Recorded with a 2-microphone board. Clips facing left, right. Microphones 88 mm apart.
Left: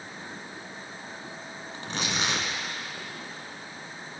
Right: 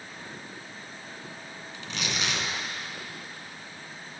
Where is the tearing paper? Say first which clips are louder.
Left 2 dB; 40° left (ahead or behind), 1.6 m.